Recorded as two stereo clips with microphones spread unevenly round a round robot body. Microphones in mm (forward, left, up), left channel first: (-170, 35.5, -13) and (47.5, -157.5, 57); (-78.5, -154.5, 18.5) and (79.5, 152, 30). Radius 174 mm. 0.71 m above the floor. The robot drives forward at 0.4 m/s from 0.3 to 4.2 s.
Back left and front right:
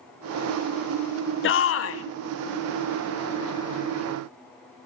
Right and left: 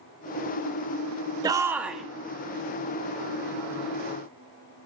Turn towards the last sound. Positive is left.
turn(degrees=170)